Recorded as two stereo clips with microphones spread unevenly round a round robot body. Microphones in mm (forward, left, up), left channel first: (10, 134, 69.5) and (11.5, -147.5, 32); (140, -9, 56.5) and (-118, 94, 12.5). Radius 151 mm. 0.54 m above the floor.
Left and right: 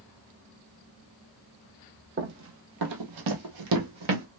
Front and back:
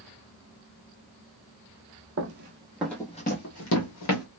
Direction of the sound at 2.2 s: 150° right.